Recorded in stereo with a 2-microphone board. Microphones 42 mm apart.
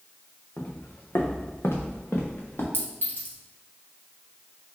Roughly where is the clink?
Left.